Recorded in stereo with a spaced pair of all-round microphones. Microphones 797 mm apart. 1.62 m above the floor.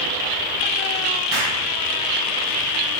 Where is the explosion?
30° right (ahead or behind), 3 m.